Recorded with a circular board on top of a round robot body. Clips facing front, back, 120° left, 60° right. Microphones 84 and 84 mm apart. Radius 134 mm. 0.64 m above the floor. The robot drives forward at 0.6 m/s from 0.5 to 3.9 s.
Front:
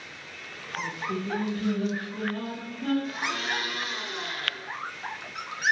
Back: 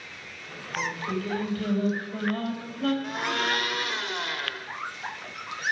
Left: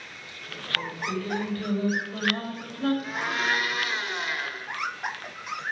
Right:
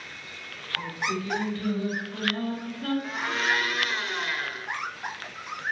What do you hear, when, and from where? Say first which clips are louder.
0.8 s singing: back 1 dB, right 1 dB; 160° left, 3 m; by 2.9 s 165° left, 4 m
3.0 s a blender: back 3 dB, even; 155° right, 1.2 m; by 4.7 s 160° right, 1.6 m